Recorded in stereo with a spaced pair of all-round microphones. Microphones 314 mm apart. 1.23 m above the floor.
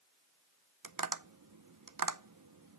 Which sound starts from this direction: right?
Tapping, at 0.8 s.